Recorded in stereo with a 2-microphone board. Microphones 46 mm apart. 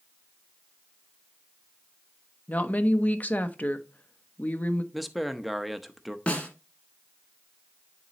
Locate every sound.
2.5 s a woman speaking: 35° left (ahead or behind), 0.7 m
4.9 s a man speaking: 5° right (ahead or behind), 0.7 m
6.3 s a snare drum: 30° left (ahead or behind), 1.7 m